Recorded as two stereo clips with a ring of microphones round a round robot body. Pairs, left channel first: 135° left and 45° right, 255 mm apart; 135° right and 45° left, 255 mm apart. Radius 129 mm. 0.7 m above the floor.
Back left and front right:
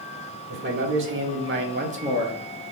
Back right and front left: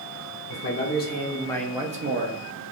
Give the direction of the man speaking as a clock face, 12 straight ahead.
3 o'clock.